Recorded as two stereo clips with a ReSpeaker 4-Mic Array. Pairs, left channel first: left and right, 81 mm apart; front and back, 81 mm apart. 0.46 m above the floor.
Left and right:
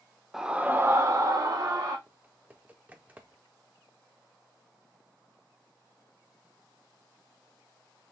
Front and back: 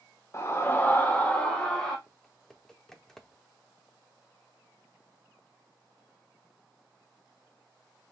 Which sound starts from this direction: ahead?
A scream, at 0.3 s.